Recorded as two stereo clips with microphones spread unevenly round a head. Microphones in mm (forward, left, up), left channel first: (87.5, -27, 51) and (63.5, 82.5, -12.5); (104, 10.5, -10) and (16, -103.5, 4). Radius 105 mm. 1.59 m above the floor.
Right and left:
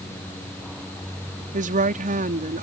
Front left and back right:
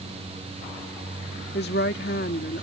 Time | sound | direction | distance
1.5 | a woman speaking | 100° left | ?